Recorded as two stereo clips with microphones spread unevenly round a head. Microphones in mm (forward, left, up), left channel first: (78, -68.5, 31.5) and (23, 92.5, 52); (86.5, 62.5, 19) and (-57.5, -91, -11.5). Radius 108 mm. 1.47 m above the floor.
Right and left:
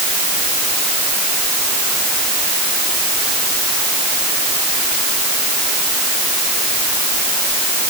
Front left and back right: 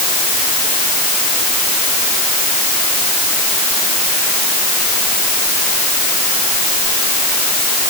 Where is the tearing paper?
No tearing paper in this recording.